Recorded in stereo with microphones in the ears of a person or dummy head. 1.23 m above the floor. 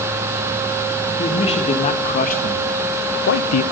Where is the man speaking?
30° left (ahead or behind), 1.8 m; by 3.6 s 80° left, 0.9 m.